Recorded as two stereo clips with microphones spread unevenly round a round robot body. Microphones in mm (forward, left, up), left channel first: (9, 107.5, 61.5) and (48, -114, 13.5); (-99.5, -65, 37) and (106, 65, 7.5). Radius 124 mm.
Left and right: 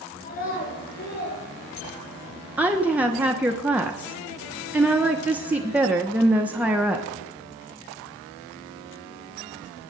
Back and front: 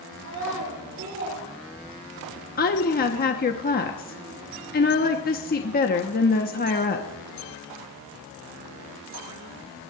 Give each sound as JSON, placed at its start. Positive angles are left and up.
{"t": 0.2, "sound": "a child speaking", "azimuth_deg": 45, "distance_m": 8.5}
{"t": 2.6, "sound": "a woman speaking", "azimuth_deg": -135, "distance_m": 1.1}